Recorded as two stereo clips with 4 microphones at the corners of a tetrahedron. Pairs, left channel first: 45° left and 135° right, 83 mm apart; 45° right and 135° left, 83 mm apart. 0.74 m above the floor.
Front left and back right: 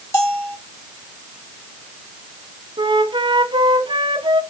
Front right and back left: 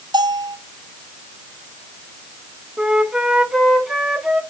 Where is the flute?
140° right, 1.8 m.